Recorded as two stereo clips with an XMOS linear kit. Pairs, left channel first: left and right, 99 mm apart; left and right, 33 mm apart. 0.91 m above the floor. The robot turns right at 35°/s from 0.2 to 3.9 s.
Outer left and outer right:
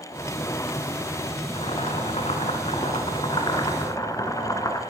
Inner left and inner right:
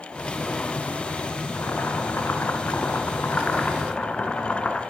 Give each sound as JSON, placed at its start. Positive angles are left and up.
{"t": 1.6, "sound": "boiling", "azimuth_deg": 65, "distance_m": 3.0}